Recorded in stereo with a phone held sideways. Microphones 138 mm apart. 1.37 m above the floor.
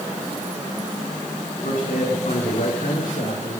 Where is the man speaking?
70° left (ahead or behind), 4 m.